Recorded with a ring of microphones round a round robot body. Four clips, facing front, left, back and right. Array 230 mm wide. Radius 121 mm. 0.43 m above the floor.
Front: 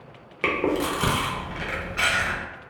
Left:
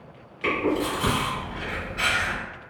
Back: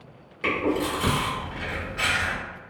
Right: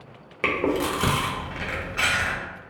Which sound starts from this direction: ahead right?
Chewing, at 0.4 s.